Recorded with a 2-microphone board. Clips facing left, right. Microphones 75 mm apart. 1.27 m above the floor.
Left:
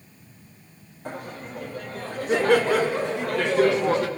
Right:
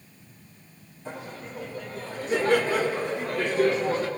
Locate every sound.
1.1 s laughter: 60° left (ahead or behind), 3 m; by 4.1 s 75° left (ahead or behind), 1.5 m